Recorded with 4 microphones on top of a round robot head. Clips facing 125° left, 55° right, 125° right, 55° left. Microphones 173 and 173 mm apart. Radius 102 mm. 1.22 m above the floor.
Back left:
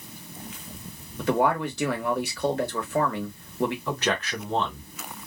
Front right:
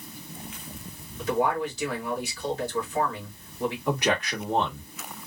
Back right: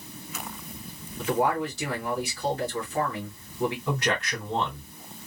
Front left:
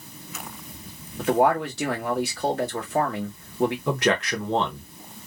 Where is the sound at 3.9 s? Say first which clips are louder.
Front right 2 dB, front left 5 dB; 25° left, 1.2 m.